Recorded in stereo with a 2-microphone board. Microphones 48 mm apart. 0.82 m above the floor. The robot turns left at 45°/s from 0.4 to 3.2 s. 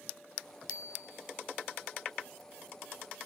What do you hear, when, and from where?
0.7 s a bicycle bell: 75° left (ahead or behind), 3 m; by 1.3 s 45° left (ahead or behind), 3 m